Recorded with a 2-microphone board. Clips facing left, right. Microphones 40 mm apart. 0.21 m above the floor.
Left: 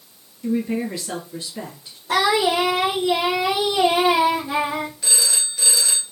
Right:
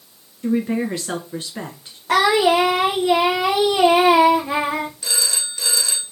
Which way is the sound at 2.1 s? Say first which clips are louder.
Right 3 dB; 50° right (ahead or behind).